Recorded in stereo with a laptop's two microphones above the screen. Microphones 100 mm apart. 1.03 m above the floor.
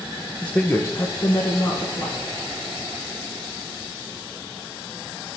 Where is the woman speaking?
10° left (ahead or behind), 0.7 m; by 2.2 s 50° left (ahead or behind), 1.3 m.